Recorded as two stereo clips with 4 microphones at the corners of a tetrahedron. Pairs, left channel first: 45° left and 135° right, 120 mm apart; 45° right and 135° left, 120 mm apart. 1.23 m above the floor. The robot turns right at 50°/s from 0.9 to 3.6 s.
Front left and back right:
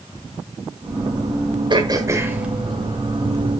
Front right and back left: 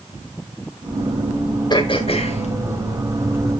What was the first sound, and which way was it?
Throat clearing, 90° right.